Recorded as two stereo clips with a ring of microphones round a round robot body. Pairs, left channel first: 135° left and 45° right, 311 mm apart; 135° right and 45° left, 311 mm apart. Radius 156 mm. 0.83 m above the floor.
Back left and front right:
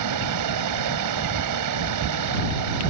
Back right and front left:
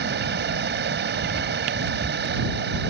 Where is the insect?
15° right.